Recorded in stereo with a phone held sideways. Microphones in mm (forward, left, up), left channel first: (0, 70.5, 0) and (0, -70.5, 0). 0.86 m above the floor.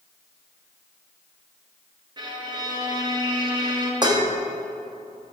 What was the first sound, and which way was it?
A violin, 30° right (ahead or behind).